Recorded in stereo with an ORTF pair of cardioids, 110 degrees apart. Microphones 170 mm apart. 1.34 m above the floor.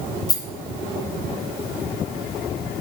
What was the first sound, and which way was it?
A rattle, 20° left.